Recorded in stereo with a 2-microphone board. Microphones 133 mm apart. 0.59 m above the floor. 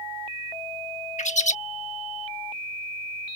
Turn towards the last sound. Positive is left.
turn(degrees=65)  # may be behind; listen again after turning